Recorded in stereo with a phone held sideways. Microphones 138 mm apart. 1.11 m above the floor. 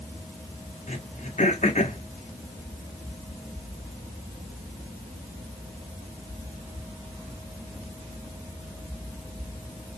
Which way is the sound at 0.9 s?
60° left (ahead or behind).